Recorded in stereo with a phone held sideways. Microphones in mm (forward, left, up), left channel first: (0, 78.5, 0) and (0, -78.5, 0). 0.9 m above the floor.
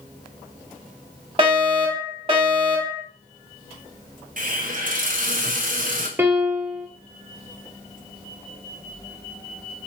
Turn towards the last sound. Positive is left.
turn(degrees=-15)  # may be behind; listen again after turning